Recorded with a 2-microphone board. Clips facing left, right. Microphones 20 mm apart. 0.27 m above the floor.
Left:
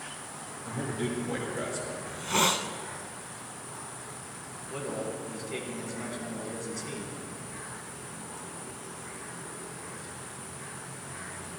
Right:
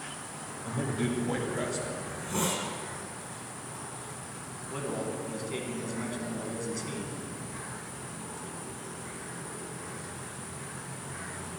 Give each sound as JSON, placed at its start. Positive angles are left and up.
{"t": 0.7, "sound": "a man speaking", "side_deg": -20, "distance_m": 1.5}
{"t": 2.1, "sound": "a hiss", "side_deg": 45, "distance_m": 0.5}
{"t": 4.7, "sound": "a man speaking", "side_deg": -5, "distance_m": 1.8}